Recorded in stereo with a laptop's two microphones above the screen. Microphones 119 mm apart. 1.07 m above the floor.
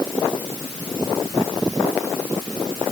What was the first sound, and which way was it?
Only background noise.